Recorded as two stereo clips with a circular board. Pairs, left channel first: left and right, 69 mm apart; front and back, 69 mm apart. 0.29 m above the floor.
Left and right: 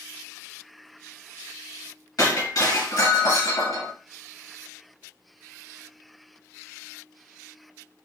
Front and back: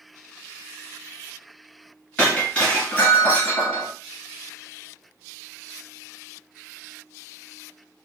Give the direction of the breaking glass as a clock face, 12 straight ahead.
10 o'clock.